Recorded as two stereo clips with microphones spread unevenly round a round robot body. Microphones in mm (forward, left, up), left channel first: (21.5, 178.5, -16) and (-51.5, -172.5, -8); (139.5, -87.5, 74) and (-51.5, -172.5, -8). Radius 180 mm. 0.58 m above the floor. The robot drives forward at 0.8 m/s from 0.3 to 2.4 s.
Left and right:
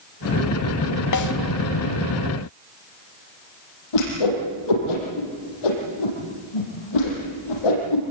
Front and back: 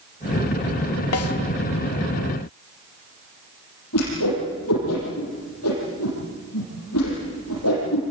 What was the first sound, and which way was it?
A snare drum, 45° left.